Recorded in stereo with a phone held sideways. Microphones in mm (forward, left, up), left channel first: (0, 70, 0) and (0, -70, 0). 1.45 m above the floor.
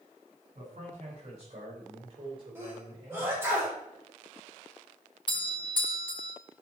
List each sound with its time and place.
0.6 s a man speaking: 55° right (ahead or behind), 6 m; by 3.5 s 30° right (ahead or behind), 6 m
2.5 s a sneeze: 15° right (ahead or behind), 6 m
5.3 s a doorbell: 35° left (ahead or behind), 1.7 m